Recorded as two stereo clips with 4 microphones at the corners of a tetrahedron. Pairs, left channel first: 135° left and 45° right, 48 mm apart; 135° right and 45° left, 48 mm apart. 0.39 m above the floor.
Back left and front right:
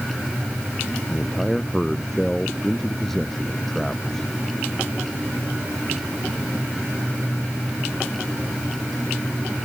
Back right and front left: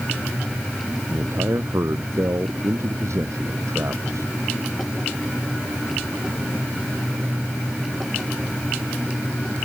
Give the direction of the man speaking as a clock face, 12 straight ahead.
10 o'clock.